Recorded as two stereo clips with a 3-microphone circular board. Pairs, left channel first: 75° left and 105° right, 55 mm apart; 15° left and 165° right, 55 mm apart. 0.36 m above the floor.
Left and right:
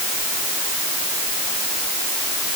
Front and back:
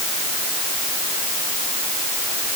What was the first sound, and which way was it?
Only background noise.